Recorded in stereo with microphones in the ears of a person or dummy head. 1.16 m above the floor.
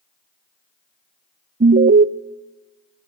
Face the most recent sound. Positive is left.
turn(degrees=-40)  # may be behind; listen again after turning